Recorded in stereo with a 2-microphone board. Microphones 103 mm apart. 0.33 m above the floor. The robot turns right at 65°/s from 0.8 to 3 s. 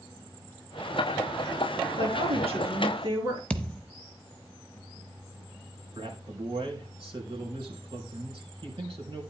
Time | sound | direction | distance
2.0 | a woman speaking | 110° right | 5.5 m
3.5 | a thud | 10° left (ahead or behind) | 0.8 m
6.0 | a man speaking | 55° right (ahead or behind) | 4.5 m